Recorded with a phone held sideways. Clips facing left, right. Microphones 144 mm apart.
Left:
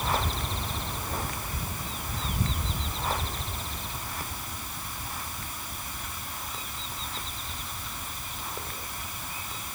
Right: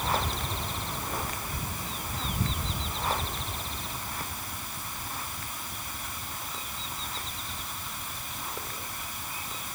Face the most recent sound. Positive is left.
No sound to turn to.